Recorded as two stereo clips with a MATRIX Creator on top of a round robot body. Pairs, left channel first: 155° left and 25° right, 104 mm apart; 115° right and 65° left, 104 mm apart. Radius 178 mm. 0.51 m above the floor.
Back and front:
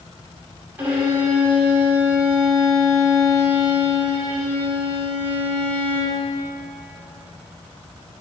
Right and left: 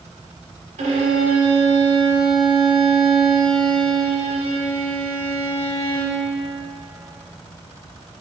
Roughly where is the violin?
Ahead left.